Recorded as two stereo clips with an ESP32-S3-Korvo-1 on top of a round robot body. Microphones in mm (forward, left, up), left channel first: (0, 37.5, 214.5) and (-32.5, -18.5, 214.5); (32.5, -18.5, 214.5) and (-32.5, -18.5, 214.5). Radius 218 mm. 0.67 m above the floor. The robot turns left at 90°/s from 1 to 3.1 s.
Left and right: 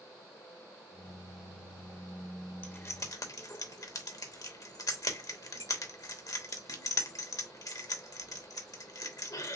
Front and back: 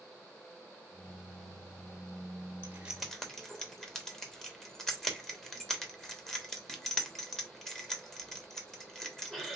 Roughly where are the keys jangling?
Behind left.